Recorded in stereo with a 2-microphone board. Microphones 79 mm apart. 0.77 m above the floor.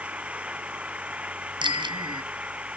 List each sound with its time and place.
0.0 s an engine running: 15° right (ahead or behind)
1.6 s a bicycle bell: 85° right